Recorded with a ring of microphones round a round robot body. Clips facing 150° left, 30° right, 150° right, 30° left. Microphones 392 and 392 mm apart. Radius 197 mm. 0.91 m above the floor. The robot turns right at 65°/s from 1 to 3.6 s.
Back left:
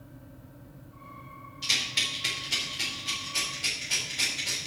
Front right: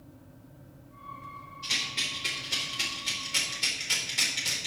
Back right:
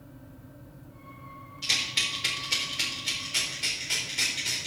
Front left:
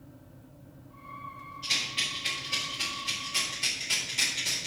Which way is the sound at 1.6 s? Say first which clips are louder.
Back left 1 dB, back right 1 dB; 175° left.